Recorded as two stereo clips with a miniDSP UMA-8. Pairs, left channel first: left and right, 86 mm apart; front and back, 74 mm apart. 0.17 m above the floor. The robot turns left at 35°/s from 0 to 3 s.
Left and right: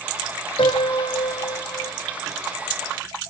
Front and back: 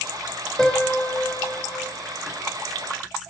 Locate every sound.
0.6 s a piano: 80° left, 2.5 m; by 1.9 s 35° left, 2.5 m